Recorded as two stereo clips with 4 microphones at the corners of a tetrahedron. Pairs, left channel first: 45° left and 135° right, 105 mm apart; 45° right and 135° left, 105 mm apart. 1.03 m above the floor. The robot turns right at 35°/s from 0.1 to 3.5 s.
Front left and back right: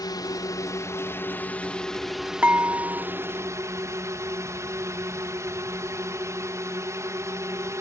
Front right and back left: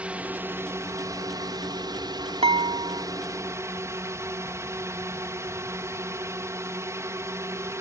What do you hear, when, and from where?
0.0 s a drone: 65° left; by 7.8 s straight behind
2.4 s dishes clattering: 150° left; by 3.0 s 170° left